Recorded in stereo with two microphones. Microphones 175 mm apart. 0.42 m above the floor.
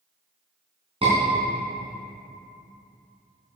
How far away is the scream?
About 4.5 m.